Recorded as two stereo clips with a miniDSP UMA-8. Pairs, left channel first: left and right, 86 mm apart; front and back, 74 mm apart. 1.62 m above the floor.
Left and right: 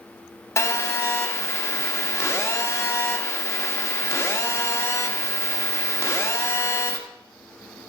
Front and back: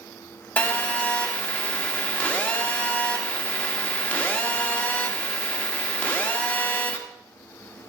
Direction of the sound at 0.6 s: 60° left.